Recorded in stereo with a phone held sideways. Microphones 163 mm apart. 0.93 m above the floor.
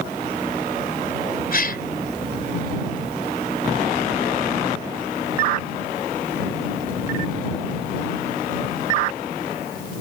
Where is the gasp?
65° left (ahead or behind).